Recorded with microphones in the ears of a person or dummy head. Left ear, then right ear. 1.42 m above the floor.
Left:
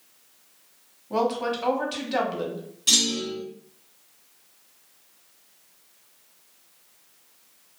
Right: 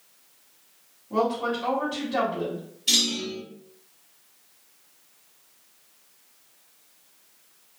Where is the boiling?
No boiling in this recording.